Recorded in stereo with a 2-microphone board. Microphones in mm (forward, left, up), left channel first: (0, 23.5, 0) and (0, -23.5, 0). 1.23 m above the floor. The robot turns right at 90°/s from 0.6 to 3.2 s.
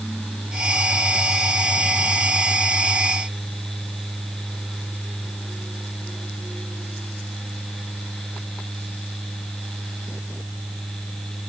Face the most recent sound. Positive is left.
No sound to turn to.